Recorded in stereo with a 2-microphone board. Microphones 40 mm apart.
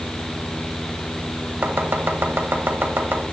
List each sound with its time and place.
1.6 s chopping: 65° right (ahead or behind), 1.6 m